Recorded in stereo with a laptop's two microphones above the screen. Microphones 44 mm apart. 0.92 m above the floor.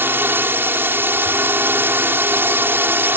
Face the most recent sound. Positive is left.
turn(degrees=-55)  # may be behind; listen again after turning